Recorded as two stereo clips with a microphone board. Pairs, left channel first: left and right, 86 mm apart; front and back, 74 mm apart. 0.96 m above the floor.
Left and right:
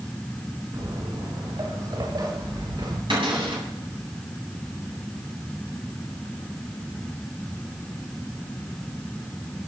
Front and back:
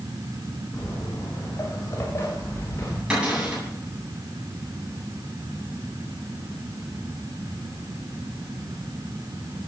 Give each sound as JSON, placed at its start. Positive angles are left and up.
{"t": 0.7, "sound": "footsteps", "azimuth_deg": -50, "distance_m": 8.0}
{"t": 3.1, "sound": "a cupboard door", "azimuth_deg": -105, "distance_m": 9.0}